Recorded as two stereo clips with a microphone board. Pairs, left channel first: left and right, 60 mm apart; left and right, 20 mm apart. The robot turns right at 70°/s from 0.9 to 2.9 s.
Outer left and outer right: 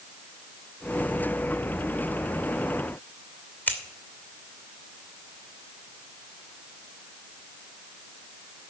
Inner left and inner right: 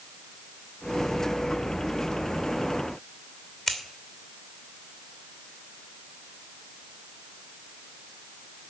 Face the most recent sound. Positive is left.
turn(degrees=25)  # may be behind; listen again after turning